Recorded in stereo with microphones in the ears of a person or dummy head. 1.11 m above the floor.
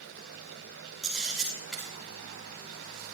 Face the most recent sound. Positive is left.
turn(degrees=5)  # may be behind; listen again after turning